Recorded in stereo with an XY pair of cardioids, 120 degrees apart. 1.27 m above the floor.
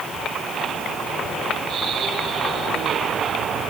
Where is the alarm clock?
I don't hear an alarm clock.